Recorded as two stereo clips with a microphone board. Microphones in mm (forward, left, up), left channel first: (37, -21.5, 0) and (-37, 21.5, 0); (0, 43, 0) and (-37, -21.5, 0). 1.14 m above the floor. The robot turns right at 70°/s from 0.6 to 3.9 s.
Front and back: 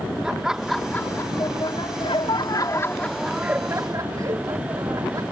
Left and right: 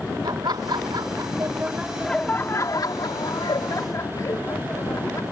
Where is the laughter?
125° right; by 5.2 s 105° left.